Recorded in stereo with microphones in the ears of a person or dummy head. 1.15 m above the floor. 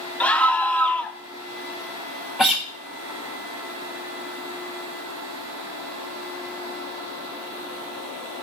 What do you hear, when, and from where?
0.2 s a scream: 10° left (ahead or behind), 0.6 m
2.4 s a guitar: centre (ahead or behind), 0.6 m